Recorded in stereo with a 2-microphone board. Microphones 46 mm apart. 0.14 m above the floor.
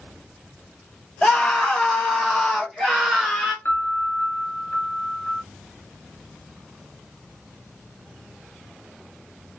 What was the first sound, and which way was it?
A scream, 10° left (ahead or behind).